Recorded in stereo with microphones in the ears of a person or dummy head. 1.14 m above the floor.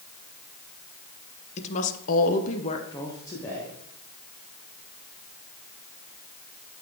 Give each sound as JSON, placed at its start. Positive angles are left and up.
{"t": 1.6, "sound": "a woman speaking", "side_deg": 35, "distance_m": 0.9}